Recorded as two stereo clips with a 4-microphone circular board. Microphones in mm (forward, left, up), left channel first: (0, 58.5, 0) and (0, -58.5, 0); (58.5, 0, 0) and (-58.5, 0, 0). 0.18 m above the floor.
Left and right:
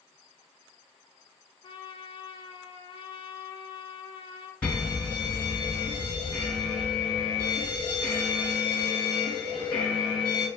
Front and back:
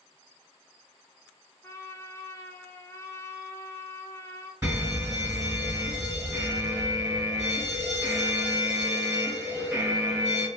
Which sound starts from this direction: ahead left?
A trumpet, at 1.6 s.